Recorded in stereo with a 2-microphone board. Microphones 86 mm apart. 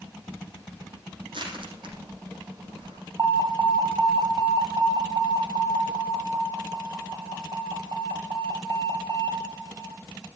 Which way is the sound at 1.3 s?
70° right (ahead or behind).